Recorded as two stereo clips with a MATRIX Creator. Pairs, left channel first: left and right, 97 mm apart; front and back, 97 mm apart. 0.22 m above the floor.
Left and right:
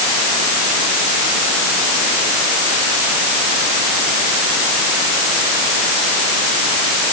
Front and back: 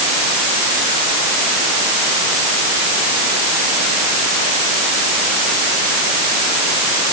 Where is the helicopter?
No helicopter in this recording.